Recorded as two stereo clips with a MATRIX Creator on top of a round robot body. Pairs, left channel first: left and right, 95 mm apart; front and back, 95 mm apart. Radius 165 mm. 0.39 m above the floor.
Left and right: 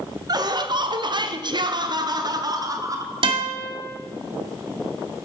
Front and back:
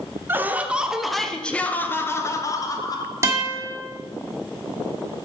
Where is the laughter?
120° right, 1.2 m; by 3.1 s 40° right, 1.6 m.